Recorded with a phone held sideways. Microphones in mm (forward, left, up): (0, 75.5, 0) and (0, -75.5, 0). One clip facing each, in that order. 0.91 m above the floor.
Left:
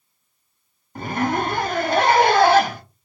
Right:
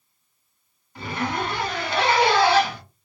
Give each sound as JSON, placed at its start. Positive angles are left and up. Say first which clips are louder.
{"t": 0.9, "sound": "a zipper", "louder": "left 5 dB", "side_deg": 45, "distance_m": 0.6}